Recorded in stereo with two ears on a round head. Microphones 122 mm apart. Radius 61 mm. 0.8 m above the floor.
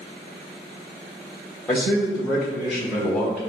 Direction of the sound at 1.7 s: 5° left (ahead or behind).